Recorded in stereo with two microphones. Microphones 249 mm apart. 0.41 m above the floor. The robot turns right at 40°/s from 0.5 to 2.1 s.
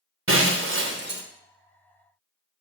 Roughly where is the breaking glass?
Right.